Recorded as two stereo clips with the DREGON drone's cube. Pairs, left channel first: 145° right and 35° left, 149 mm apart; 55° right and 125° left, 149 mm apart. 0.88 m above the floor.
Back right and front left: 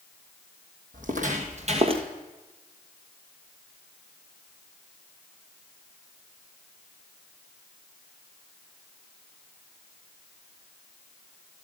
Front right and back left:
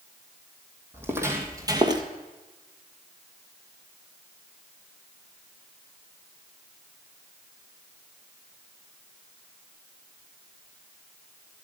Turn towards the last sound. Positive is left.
turn(degrees=75)